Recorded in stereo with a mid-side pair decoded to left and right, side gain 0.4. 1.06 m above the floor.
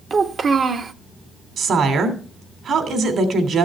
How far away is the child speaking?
About 1.1 m.